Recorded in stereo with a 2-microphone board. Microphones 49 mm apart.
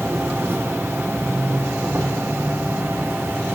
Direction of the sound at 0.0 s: 60° right (ahead or behind).